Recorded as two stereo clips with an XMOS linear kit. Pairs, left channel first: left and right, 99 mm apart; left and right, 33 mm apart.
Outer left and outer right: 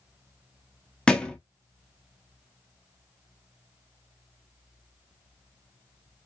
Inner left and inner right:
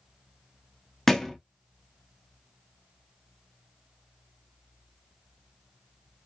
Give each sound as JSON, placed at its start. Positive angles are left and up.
{"t": 1.1, "sound": "a thud", "side_deg": 10, "distance_m": 0.5}